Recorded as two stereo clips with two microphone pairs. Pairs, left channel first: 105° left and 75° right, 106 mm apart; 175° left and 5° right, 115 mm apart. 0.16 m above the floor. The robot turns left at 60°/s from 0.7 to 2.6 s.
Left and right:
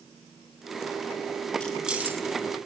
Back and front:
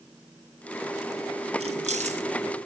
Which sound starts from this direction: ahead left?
Keys jangling, at 1.6 s.